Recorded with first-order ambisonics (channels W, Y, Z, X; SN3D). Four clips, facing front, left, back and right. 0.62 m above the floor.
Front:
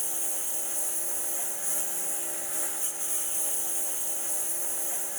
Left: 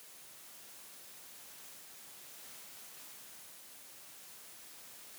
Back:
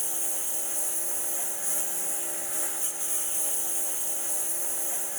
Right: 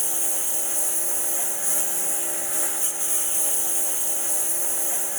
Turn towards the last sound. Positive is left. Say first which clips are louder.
# right 27 dB, back 1 dB
turn(degrees=-95)